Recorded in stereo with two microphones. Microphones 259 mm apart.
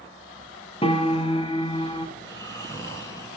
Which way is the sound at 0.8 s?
20° left (ahead or behind).